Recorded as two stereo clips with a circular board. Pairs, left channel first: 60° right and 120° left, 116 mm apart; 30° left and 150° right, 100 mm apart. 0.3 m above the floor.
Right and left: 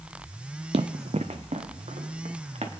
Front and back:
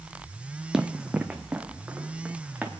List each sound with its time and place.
0.7 s running footsteps: 125° left, 0.5 m; by 2.7 s 135° left, 1.9 m